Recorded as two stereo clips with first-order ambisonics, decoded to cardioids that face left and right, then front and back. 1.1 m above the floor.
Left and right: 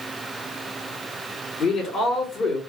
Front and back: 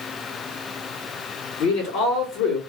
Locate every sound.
1.6 s a man speaking: 25° left, 2.5 m